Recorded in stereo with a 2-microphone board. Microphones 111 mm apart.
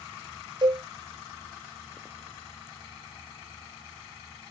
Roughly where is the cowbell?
Right.